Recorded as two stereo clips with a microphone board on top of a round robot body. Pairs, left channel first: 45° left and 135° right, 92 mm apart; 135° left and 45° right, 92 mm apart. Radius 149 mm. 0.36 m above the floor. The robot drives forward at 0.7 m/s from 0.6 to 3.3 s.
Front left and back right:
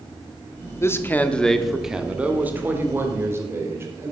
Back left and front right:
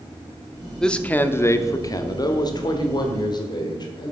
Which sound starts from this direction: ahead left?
A man speaking, at 0.8 s.